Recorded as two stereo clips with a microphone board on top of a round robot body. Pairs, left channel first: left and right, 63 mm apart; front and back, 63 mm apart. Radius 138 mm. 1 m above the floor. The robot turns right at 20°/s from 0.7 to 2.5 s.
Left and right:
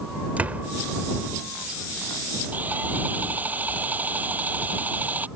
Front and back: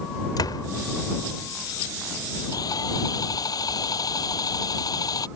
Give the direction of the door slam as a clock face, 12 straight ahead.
1 o'clock.